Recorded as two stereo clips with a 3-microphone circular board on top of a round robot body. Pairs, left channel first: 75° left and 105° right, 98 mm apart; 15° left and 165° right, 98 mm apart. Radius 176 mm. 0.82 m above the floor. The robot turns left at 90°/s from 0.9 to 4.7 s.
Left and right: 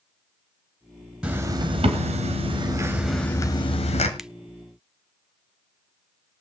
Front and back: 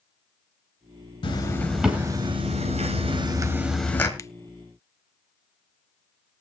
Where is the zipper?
25° right, 2 m; by 4.1 s 80° left, 2 m.